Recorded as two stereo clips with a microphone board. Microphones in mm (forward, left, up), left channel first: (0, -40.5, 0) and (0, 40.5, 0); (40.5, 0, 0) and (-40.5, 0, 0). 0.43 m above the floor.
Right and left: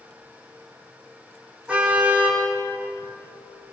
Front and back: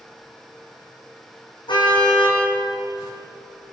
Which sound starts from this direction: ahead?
A car horn, at 1.7 s.